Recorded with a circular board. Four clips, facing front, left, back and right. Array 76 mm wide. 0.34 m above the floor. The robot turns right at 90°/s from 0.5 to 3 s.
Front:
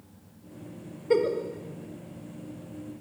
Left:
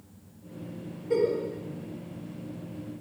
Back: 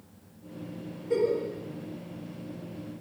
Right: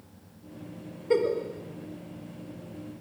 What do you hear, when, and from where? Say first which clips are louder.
1.1 s a giggle: right 1 dB, front 2 dB; 40° right, 0.7 m; by 1.4 s 15° right, 0.7 m